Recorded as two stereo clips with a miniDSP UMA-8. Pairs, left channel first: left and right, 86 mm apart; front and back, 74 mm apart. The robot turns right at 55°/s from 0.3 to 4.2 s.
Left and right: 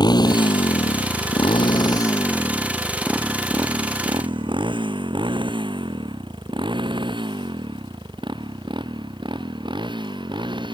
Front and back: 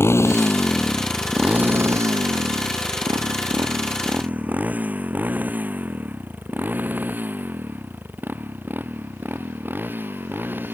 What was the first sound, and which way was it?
A motorcycle, 55° left.